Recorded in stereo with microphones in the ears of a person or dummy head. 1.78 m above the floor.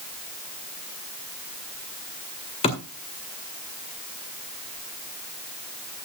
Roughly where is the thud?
Left.